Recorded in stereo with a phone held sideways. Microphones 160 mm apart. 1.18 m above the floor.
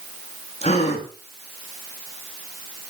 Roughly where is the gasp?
Left.